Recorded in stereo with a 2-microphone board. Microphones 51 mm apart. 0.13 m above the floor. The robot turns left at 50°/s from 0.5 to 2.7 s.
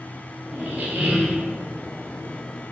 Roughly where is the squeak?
Right.